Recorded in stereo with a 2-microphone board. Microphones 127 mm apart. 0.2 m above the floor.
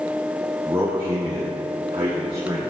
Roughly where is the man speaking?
Right.